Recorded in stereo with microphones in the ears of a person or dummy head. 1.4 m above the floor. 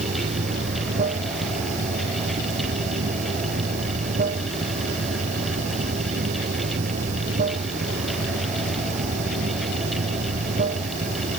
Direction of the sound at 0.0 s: 45° right (ahead or behind).